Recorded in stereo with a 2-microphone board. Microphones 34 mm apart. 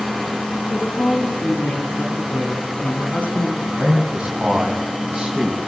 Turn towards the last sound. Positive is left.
turn(degrees=-20)  # may be behind; listen again after turning